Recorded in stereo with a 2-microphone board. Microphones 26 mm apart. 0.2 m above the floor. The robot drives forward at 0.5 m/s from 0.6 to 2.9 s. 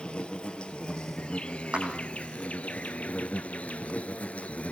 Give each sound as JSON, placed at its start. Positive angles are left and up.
{"t": 0.0, "sound": "an insect", "side_deg": 40, "distance_m": 2.0}
{"t": 1.7, "sound": "a clap", "side_deg": -45, "distance_m": 8.5}